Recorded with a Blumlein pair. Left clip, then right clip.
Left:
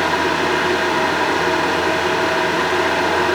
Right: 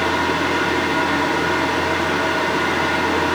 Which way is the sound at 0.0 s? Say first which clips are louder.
Left 2 dB; 65° left.